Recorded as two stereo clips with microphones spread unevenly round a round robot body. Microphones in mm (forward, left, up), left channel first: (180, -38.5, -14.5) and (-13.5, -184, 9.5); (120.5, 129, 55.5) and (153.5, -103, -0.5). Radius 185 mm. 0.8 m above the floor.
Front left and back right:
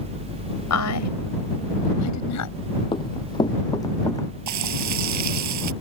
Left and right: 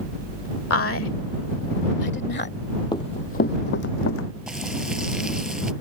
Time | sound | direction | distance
0.7 | a woman speaking | 75° left | ?
2.9 | running footsteps | 100° left | ?
4.5 | frying | 170° right | ?